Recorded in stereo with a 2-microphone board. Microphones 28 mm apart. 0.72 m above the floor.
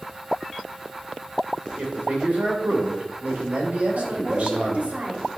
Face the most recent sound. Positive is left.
turn(degrees=-60)  # may be behind; listen again after turning